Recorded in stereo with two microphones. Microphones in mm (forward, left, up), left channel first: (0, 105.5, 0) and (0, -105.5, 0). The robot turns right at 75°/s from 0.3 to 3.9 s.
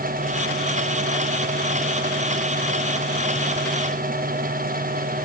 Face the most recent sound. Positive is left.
No sound to turn to.